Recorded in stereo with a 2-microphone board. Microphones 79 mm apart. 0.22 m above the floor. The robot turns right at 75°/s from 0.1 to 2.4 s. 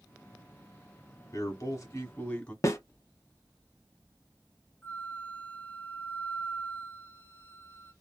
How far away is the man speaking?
About 1.3 m.